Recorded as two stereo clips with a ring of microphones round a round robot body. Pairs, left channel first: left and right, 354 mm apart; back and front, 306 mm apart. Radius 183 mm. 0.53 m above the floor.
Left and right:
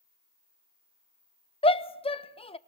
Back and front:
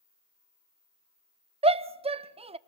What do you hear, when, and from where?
1.6 s a shout: 40° left, 0.7 m